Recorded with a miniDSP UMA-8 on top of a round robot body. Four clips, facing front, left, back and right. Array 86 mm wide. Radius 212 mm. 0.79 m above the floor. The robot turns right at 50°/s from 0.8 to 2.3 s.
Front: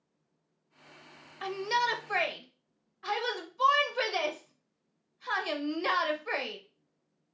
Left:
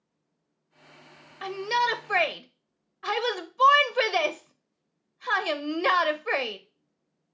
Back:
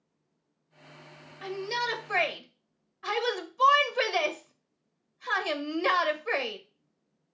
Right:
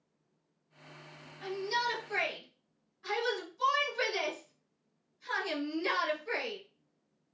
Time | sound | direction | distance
1.4 | a shout | 50° left | 0.8 m